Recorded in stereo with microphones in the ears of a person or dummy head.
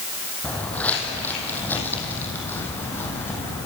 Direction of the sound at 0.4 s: 5° left (ahead or behind).